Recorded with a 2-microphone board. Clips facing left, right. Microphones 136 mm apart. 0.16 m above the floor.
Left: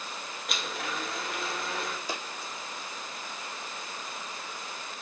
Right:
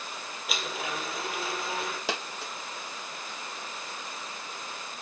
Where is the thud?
I don't hear a thud.